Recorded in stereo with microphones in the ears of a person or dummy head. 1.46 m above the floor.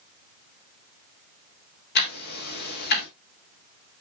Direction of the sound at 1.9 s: 55° left (ahead or behind).